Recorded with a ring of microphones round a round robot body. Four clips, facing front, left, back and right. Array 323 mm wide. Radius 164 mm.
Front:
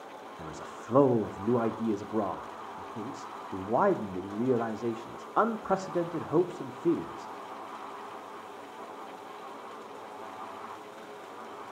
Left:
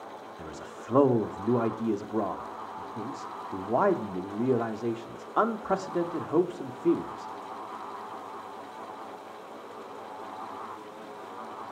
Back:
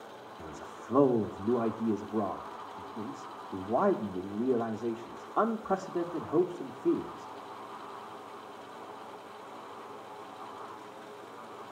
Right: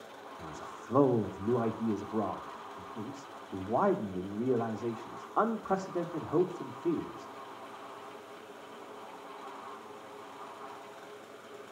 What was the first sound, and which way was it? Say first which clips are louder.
A man speaking: left 1 dB, front 2 dB; 60° left.